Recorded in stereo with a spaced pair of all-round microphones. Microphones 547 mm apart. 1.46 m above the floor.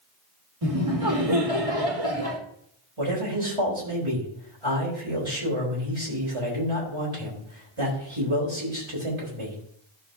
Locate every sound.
0.6 s laughter: 75° right (ahead or behind), 2.5 m
3.0 s a man speaking: 60° right (ahead or behind), 4 m